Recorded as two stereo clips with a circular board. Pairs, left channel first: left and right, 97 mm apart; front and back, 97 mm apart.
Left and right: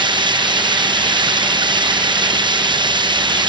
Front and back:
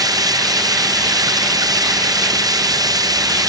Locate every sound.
0.0 s running water: 130° right